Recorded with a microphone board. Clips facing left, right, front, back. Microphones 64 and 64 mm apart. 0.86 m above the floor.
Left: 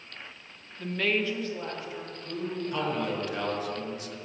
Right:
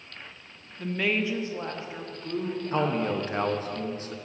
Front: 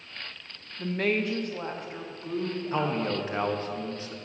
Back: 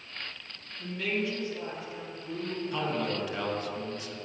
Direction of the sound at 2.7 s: 45° right.